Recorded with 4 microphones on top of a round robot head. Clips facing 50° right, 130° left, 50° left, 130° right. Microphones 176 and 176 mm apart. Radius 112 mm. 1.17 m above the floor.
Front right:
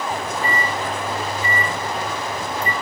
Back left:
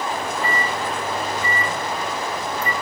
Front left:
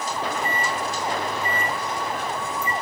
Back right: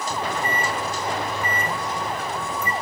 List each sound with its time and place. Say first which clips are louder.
0.1 s a microwave: even, back right 1 dB; 115° right, 3.5 m